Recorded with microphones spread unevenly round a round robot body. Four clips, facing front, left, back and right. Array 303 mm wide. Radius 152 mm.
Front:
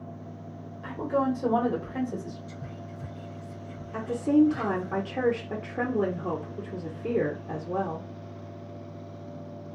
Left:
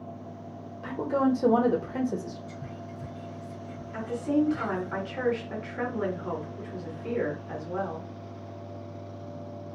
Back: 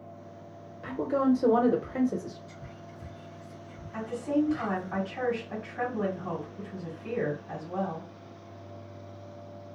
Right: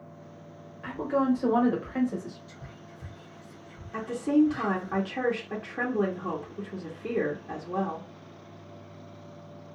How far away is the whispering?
About 1.0 m.